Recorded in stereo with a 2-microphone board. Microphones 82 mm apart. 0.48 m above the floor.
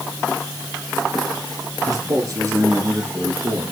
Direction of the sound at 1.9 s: 45° right (ahead or behind).